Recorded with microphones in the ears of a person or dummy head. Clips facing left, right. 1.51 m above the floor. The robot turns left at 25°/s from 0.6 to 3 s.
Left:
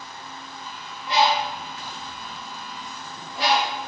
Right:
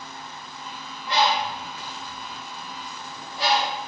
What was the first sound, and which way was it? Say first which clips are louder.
A bird: left 2 dB; 20° left (ahead or behind).